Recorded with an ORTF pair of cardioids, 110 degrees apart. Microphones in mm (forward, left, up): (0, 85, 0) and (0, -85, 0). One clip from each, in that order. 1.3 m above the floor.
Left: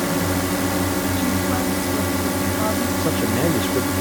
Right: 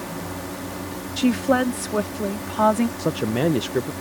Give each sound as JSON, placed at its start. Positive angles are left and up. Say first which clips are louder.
{"t": 0.0, "sound": "a drone", "louder": "left 10 dB", "azimuth_deg": 65}
{"t": 1.2, "sound": "a woman speaking", "louder": "right 2 dB", "azimuth_deg": -50}
{"t": 3.0, "sound": "a man speaking", "louder": "left 2 dB", "azimuth_deg": -5}